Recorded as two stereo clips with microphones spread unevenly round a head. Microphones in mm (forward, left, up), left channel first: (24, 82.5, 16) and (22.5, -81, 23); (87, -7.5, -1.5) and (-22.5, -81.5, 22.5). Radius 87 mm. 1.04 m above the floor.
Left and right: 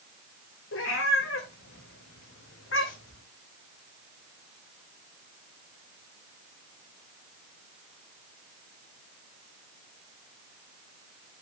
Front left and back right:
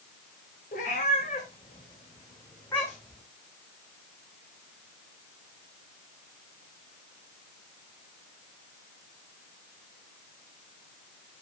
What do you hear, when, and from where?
0.7 s a cat meowing: 85° left, 2.5 m; by 3.2 s 120° left, 2 m